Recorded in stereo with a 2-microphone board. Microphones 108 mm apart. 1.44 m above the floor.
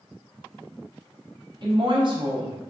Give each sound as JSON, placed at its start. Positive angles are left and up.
{"t": 1.6, "sound": "a woman speaking", "side_deg": -45, "distance_m": 0.8}